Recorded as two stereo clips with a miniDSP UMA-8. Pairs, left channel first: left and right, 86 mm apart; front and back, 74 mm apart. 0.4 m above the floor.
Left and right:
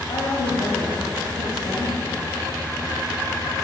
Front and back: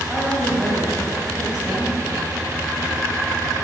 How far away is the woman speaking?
About 2.5 m.